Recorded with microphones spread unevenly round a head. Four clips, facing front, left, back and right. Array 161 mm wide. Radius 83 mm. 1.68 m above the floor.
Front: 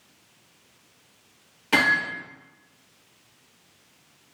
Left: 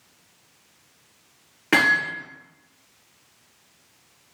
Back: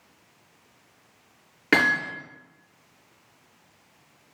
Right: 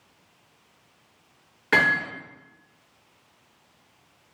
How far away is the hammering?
About 7 m.